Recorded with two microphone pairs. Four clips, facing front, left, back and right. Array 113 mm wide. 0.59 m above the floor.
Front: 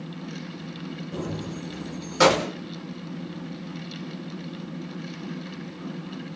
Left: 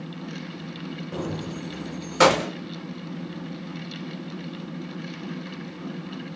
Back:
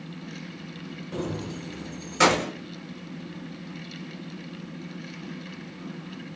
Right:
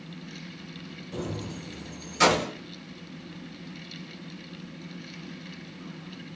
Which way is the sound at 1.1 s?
115° left.